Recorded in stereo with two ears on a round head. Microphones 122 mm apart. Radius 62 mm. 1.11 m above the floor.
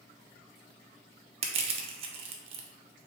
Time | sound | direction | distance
1.4 | crushing | 45° right (ahead or behind) | 0.6 m